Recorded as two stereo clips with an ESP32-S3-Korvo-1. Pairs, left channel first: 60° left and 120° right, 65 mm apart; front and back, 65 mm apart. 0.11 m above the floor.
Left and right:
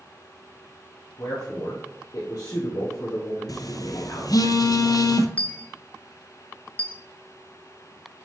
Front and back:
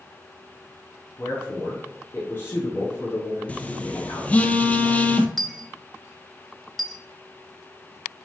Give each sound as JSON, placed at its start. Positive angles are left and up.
{"t": 1.2, "sound": "a man speaking", "azimuth_deg": 50, "distance_m": 2.0}
{"t": 3.5, "sound": "a phone buzzing", "azimuth_deg": 70, "distance_m": 0.5}
{"t": 5.4, "sound": "a dropped coin", "azimuth_deg": 85, "distance_m": 0.6}